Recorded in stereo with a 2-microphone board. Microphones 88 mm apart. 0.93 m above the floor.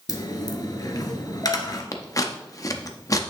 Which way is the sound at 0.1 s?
45° left (ahead or behind).